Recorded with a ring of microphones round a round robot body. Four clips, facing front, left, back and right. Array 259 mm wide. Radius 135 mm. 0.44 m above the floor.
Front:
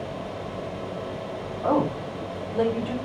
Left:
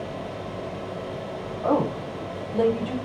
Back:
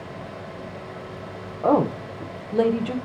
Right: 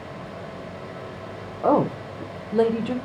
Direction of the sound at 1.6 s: 130° right.